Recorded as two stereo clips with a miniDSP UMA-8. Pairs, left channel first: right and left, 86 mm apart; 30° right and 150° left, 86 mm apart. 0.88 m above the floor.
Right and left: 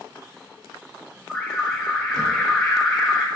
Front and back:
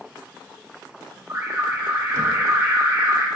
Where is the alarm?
175° right, 2.0 m.